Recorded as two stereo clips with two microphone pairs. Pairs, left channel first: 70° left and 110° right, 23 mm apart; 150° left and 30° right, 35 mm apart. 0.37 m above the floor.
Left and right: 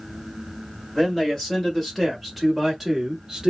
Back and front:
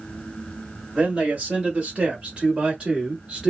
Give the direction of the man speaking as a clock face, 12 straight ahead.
11 o'clock.